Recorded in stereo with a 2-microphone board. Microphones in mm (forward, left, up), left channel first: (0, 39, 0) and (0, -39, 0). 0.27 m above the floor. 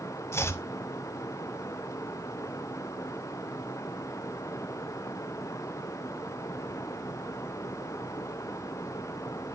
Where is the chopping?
35° left (ahead or behind), 0.7 m.